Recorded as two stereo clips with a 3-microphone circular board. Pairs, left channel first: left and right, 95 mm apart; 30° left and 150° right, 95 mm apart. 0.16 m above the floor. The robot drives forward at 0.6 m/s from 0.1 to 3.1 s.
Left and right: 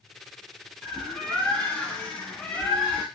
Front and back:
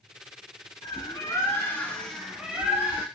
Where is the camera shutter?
I don't hear a camera shutter.